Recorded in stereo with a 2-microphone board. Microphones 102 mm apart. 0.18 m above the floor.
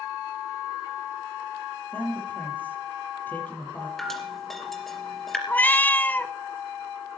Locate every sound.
1.9 s a man speaking: 20° left (ahead or behind), 6 m
4.0 s dripping: centre (ahead or behind), 3 m
5.5 s a cat meowing: 20° left (ahead or behind), 0.5 m